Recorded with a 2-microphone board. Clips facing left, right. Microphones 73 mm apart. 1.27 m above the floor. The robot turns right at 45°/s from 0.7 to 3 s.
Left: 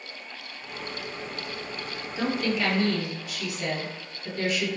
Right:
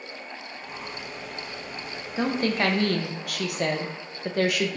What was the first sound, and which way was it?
A woman speaking, 155° right.